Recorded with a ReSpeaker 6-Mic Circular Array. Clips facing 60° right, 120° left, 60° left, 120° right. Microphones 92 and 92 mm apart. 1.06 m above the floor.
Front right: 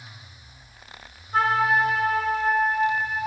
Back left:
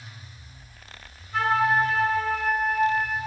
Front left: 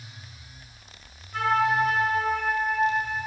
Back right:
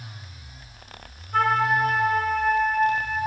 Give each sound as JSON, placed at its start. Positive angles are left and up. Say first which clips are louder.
{"t": 1.3, "sound": "a flute", "louder": "front right 1 dB, back right 2 dB", "azimuth_deg": -105, "distance_m": 1.2}